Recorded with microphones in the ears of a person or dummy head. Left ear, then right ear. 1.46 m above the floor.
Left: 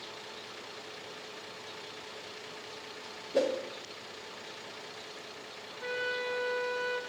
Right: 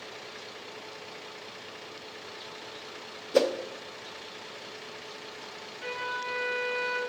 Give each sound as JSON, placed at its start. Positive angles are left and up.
{"t": 3.3, "sound": "a whoosh", "side_deg": -40, "distance_m": 0.5}
{"t": 5.8, "sound": "a flute", "side_deg": 10, "distance_m": 2.0}